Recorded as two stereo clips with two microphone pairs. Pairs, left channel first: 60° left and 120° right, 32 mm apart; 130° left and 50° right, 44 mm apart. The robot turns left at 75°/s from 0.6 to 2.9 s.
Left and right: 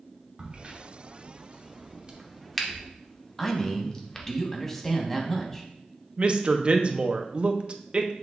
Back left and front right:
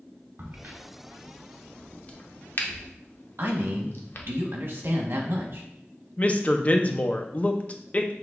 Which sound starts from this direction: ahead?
A man speaking, at 3.4 s.